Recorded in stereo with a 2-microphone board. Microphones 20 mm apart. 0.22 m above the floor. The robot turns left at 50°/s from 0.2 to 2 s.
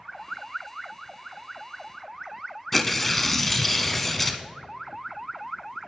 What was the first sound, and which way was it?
Tearing paper, 10° left (ahead or behind).